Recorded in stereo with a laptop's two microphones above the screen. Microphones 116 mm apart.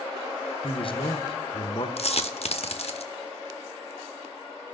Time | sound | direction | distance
0.6 | a man speaking | 50° left (ahead or behind) | 0.6 m
2.0 | a dropped coin | 60° left (ahead or behind) | 0.7 m